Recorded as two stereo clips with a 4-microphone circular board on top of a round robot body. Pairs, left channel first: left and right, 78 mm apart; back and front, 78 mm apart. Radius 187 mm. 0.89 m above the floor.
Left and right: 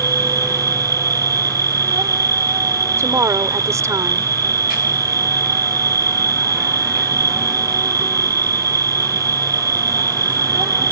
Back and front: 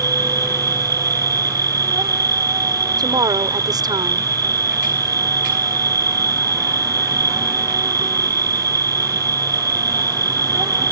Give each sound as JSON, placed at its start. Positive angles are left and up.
{"t": 0.0, "sound": "an insect", "azimuth_deg": -45}
{"t": 3.0, "sound": "a woman speaking", "azimuth_deg": -35}